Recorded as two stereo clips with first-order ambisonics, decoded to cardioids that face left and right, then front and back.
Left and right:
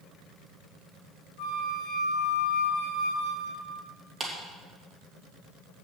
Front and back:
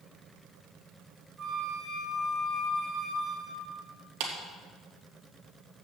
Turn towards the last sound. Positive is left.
turn(degrees=-165)